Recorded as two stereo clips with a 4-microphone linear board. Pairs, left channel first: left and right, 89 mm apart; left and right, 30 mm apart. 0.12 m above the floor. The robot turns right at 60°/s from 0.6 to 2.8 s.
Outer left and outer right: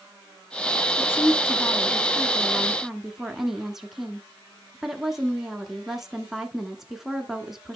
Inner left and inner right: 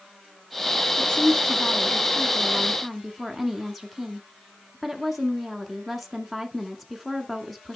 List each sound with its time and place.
1.0 s a woman speaking: 25° left (ahead or behind), 1.1 m; by 7.8 s 5° right (ahead or behind), 1.1 m